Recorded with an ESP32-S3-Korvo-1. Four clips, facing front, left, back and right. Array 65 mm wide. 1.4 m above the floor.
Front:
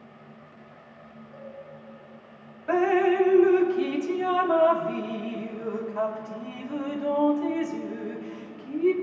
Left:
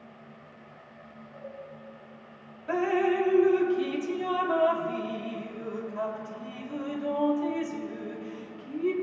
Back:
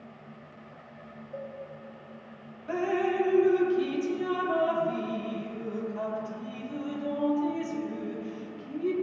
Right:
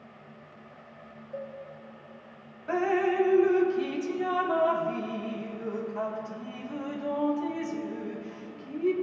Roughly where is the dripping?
Ahead.